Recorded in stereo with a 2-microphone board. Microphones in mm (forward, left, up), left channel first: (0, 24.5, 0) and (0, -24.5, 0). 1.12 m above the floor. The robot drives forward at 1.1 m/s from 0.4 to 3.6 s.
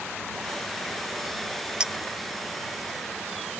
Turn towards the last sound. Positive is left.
turn(degrees=-45)  # may be behind; listen again after turning